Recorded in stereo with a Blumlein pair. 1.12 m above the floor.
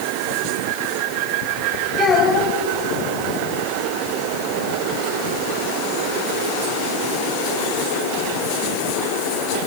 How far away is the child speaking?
About 4 m.